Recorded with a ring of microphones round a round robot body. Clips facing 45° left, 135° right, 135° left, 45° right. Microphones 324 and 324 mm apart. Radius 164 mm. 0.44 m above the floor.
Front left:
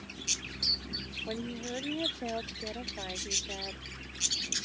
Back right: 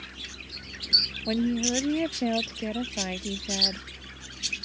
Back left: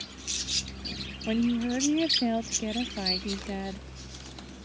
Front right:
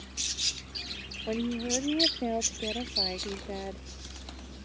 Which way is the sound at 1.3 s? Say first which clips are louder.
Back right 12 dB, back left 5 dB; 170° right.